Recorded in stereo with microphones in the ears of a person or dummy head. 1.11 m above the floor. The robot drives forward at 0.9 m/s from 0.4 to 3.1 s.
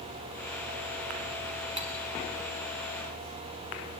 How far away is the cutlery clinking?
About 1.3 m.